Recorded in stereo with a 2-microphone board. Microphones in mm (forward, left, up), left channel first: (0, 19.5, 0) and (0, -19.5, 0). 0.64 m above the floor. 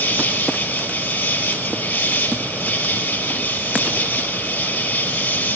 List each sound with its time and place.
0.0 s an insect: 65° left (ahead or behind), 4.5 m